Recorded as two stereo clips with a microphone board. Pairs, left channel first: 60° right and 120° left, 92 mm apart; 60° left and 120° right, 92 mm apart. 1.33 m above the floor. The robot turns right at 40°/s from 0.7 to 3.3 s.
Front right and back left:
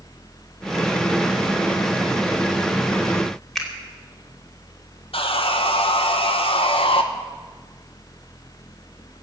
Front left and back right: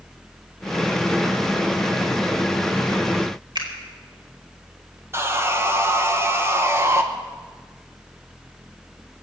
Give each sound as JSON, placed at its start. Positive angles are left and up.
{"t": 3.5, "sound": "a finger snap", "azimuth_deg": -150, "distance_m": 2.5}
{"t": 5.1, "sound": "sawing", "azimuth_deg": -60, "distance_m": 1.2}